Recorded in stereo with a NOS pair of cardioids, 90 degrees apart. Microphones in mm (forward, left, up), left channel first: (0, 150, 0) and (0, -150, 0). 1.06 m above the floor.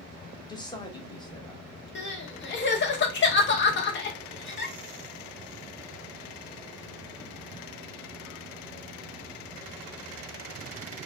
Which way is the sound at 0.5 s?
15° left.